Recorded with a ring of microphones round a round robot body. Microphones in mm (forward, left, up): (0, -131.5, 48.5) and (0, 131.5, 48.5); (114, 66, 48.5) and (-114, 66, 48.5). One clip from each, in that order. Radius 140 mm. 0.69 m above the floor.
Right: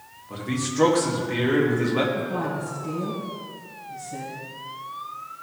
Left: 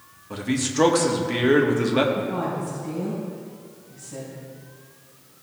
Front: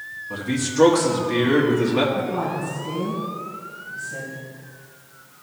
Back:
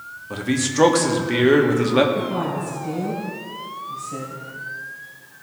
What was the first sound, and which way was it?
A man speaking, 150° left.